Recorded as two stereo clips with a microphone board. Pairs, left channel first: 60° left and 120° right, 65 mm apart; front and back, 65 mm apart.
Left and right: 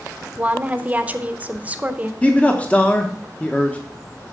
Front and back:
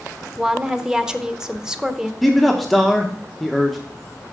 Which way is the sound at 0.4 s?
120° right.